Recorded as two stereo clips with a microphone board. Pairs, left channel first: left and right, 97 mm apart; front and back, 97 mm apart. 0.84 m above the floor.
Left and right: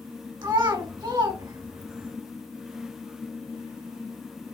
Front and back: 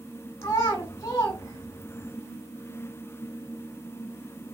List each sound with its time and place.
0.4 s a child speaking: 45° right, 1.2 m